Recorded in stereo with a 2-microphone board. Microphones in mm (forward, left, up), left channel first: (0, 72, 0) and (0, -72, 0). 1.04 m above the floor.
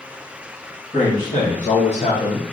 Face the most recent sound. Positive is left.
turn(degrees=20)  # may be behind; listen again after turning